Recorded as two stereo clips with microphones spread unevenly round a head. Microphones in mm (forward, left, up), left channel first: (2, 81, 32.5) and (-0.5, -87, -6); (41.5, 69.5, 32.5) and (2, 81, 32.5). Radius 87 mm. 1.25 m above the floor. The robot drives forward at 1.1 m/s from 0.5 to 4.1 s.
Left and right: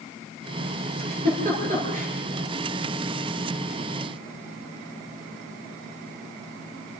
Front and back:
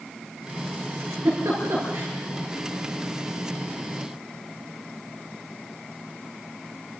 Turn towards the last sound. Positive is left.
turn(degrees=-150)